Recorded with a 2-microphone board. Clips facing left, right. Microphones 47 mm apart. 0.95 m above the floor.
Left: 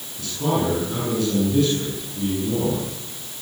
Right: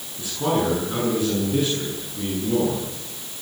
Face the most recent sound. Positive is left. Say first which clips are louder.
# even
turn(degrees=-20)  # may be behind; listen again after turning